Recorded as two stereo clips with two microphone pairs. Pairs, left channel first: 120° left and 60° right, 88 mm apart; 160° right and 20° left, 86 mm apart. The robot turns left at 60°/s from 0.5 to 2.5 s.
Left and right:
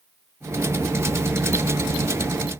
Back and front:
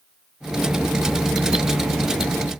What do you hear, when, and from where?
Only background noise.